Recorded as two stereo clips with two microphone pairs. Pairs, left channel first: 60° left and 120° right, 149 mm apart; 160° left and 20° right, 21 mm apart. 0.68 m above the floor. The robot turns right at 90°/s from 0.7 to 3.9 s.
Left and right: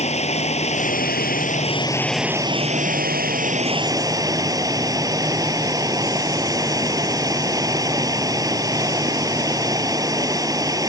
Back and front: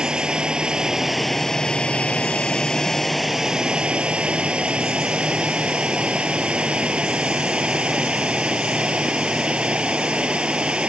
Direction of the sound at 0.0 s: 20° left.